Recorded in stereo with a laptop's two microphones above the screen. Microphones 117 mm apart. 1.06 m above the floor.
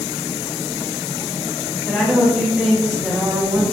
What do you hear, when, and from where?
1.9 s a woman speaking: centre (ahead or behind), 1.3 m